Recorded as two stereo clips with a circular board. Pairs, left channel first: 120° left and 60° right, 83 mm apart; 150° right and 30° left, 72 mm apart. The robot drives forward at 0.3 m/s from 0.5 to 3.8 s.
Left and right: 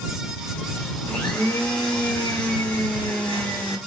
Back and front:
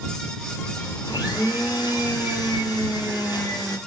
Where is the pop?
I don't hear a pop.